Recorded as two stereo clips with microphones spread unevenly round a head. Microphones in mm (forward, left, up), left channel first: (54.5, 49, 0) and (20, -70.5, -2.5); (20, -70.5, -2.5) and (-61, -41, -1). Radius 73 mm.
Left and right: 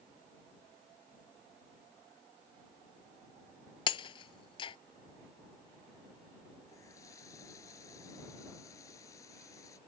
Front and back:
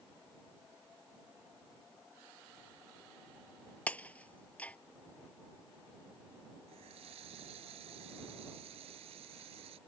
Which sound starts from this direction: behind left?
A running tap, at 6.7 s.